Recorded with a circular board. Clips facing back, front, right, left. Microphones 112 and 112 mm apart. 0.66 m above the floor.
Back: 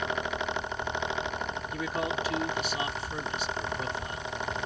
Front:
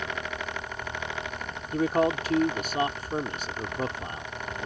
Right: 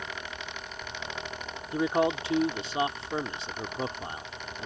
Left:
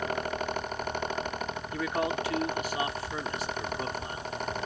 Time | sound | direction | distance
1.7 | a man speaking | 30° right | ?